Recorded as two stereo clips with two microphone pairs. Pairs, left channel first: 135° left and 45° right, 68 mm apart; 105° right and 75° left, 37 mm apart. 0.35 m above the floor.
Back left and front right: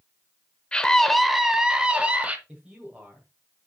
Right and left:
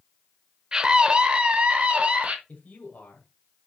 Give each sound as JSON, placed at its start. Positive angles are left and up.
{"t": 0.7, "sound": "a scream", "azimuth_deg": 90, "distance_m": 0.8}
{"t": 2.5, "sound": "a man speaking", "azimuth_deg": -115, "distance_m": 1.9}